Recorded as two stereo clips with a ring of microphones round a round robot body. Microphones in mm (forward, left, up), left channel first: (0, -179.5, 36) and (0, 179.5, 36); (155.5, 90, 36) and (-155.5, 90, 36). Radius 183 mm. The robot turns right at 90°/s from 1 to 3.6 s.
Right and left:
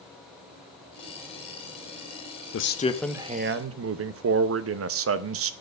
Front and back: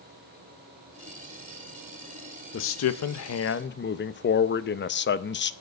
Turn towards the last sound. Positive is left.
turn(degrees=45)